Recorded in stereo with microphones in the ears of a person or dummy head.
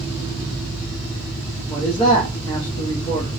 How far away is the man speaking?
About 0.7 m.